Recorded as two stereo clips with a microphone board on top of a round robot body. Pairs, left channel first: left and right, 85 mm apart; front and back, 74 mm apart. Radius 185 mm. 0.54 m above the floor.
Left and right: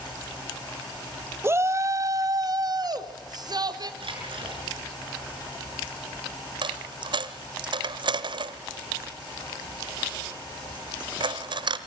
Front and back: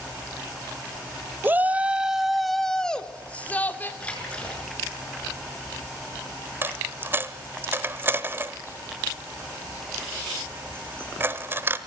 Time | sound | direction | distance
1.4 | a shout | 135° right | 1.4 m
4.0 | a splash | 75° right | 6.5 m
6.6 | a dropped coin | 120° right | 1.0 m